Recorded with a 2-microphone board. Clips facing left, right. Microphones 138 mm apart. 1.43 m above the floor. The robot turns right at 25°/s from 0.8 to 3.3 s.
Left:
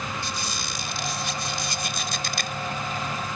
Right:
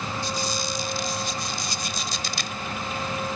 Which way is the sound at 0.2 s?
80° left.